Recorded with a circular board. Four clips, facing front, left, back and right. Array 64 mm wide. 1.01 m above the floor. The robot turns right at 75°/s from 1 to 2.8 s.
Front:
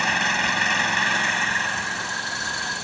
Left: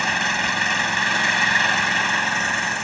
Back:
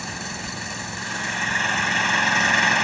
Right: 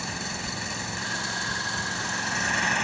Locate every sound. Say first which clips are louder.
0.0 s an engine running: left 12 dB, front 10 dB; 50° left; by 2.8 s 175° right